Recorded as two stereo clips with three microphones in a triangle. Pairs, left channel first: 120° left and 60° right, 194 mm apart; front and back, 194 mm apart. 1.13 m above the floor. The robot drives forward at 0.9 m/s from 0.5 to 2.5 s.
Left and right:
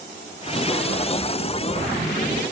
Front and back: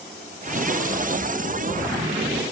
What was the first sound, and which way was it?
Only background noise.